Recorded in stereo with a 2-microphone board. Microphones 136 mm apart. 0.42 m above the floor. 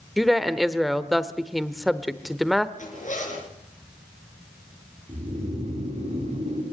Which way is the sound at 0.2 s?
Centre (ahead or behind).